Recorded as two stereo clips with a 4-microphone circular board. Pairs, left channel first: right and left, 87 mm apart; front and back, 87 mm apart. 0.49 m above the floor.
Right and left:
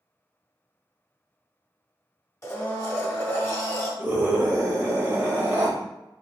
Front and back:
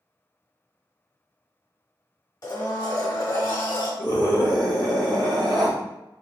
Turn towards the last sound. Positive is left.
turn(degrees=155)